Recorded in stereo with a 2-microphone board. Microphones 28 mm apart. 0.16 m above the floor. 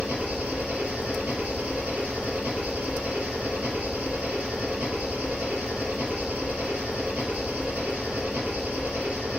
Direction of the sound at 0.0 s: 70° right (ahead or behind).